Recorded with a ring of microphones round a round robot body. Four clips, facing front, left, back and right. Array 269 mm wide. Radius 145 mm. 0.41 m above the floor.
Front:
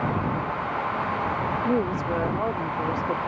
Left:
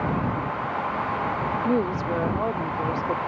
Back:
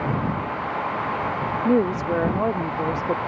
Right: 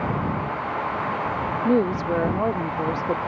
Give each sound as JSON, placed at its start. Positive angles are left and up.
{"t": 1.6, "sound": "a woman speaking", "azimuth_deg": -145}